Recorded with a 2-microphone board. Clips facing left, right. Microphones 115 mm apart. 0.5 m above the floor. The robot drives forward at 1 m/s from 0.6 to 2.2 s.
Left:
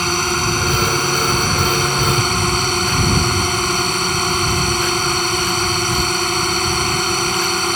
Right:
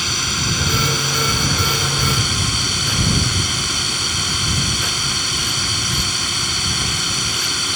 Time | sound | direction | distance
0.0 | a drone | 45° left (ahead or behind) | ?